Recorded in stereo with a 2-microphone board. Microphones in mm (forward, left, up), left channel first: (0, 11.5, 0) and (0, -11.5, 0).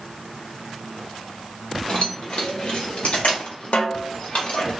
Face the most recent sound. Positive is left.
turn(degrees=70)  # may be behind; listen again after turning